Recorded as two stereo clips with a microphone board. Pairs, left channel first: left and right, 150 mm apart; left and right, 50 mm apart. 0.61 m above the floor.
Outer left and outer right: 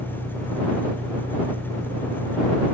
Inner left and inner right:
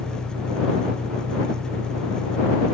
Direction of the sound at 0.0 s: 15° right (ahead or behind).